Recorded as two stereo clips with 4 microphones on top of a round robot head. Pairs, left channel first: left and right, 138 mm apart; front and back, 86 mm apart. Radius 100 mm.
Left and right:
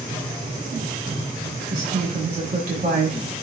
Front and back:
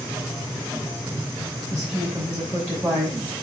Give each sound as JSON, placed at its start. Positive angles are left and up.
{"t": 1.7, "sound": "a woman speaking", "azimuth_deg": -115, "distance_m": 5.5}